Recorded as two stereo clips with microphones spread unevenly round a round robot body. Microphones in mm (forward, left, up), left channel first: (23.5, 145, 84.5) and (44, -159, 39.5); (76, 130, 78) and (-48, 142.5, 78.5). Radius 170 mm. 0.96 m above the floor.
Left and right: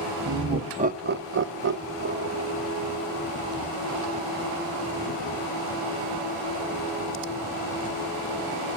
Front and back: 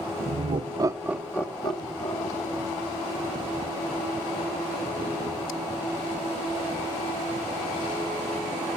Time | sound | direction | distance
0.2 | laughter | 160° right | 1.7 m